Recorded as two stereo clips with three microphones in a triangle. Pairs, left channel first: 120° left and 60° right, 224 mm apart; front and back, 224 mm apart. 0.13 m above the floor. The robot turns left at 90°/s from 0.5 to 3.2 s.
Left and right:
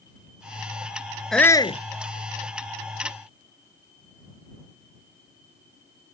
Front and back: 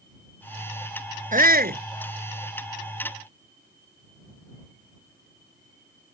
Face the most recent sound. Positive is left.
turn(degrees=40)